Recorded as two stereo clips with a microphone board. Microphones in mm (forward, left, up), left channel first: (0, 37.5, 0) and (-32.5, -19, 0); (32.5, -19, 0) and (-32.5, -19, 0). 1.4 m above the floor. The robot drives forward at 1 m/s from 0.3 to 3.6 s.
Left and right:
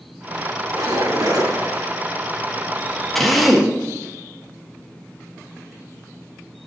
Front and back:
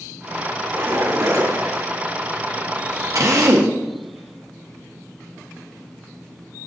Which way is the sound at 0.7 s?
135° right.